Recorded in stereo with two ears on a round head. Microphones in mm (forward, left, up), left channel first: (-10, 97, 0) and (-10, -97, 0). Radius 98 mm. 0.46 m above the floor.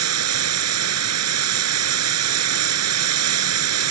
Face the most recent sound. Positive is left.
turn(degrees=-80)